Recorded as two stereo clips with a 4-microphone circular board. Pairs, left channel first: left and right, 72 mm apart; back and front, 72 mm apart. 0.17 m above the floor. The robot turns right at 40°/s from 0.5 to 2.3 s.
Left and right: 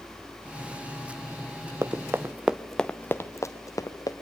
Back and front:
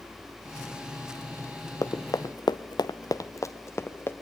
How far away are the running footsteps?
About 1.1 m.